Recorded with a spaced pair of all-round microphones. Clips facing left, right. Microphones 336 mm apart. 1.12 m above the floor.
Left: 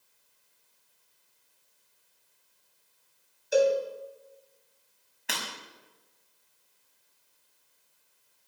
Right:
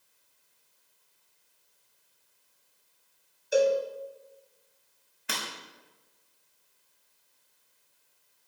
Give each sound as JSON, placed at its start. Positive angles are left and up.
{"t": 3.5, "sound": "a cowbell", "side_deg": 0, "distance_m": 2.0}
{"t": 5.3, "sound": "breaking glass", "side_deg": -5, "distance_m": 5.0}